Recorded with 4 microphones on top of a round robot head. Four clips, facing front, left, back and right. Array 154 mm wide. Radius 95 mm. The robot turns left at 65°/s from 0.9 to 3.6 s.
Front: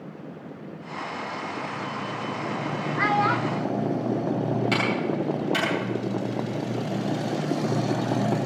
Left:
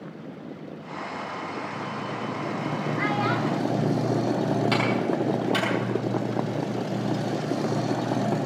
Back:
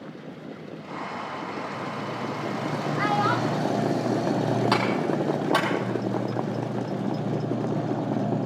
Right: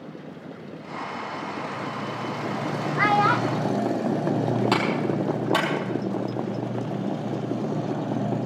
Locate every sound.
3.0 s a child speaking: 75° right, 0.9 m; by 3.8 s 115° right, 0.9 m
4.7 s a clap: 140° right, 4.5 m